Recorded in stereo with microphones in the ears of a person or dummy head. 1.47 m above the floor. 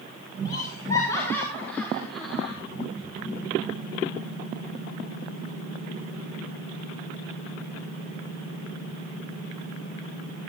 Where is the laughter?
25° left (ahead or behind), 4.5 m; by 2.6 s 5° right (ahead or behind), 4 m.